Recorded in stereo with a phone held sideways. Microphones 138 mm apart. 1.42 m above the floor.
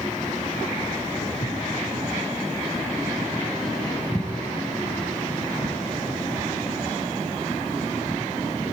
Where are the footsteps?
65° left (ahead or behind), 4 m; by 5.7 s 10° right (ahead or behind), 3.5 m.